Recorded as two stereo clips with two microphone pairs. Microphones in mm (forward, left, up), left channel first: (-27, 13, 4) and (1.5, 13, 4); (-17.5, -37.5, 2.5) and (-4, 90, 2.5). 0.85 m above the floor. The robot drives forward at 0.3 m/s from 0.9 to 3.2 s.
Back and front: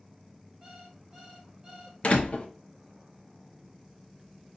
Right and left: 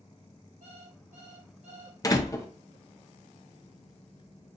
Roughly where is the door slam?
Behind right.